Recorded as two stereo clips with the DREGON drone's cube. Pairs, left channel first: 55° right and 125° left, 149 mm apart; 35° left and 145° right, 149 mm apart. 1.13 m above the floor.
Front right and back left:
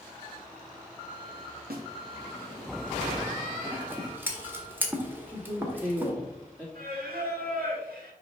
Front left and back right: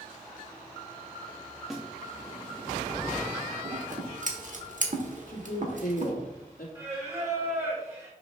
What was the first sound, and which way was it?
A snare drum, 125° left.